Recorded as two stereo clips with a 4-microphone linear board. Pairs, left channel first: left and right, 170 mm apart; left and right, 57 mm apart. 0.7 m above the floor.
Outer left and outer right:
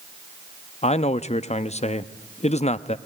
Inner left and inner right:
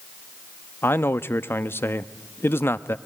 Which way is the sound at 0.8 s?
40° left (ahead or behind).